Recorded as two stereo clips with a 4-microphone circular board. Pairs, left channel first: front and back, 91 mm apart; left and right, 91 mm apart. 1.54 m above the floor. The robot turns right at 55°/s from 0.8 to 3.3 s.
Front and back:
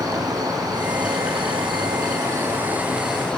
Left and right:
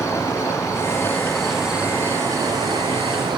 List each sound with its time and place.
0.0 s an insect: 140° left, 1.3 m; by 3.4 s 80° right, 1.3 m